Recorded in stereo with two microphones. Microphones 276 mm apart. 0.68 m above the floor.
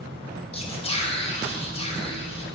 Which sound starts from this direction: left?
Whispering, at 0.5 s.